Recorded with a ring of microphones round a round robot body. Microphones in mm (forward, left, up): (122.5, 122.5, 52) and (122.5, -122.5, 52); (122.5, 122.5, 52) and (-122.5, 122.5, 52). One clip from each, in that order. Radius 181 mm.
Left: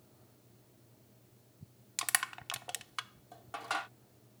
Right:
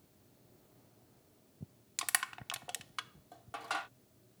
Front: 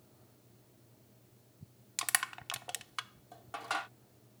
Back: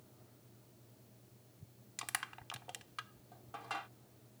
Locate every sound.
2.0 s crushing: straight ahead